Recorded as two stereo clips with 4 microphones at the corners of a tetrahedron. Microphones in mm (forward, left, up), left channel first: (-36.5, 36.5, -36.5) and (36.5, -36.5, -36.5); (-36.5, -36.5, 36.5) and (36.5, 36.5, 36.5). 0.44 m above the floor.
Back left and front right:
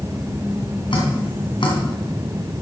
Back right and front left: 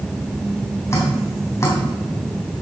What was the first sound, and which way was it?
Dripping, 165° left.